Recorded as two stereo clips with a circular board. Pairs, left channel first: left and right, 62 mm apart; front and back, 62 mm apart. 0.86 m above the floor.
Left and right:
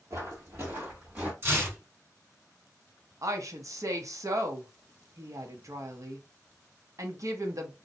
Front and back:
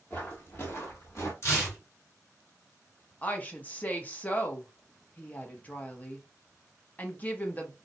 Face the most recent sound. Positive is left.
turn(degrees=-60)